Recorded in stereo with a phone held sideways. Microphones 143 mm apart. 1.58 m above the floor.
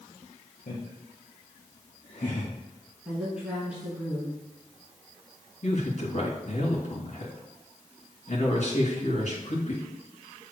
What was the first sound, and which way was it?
Laughter, 80° left.